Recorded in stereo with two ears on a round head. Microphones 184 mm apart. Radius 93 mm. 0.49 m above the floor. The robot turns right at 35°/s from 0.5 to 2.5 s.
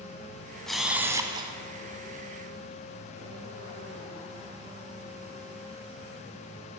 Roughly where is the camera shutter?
Centre.